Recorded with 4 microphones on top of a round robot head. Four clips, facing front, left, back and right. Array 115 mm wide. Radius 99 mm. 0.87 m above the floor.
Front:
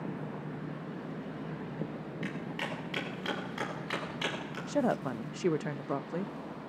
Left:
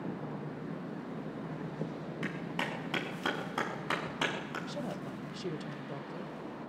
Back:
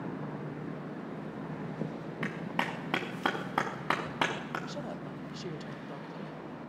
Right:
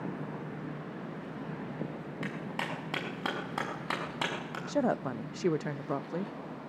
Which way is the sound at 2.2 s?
165° right.